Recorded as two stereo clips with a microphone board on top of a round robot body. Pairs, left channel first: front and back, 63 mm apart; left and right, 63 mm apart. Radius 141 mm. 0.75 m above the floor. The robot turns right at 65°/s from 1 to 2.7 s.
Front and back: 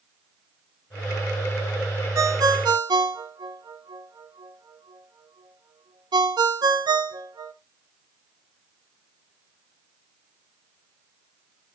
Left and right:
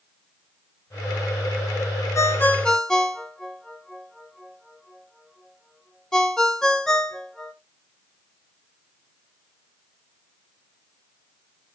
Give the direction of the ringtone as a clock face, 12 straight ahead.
7 o'clock.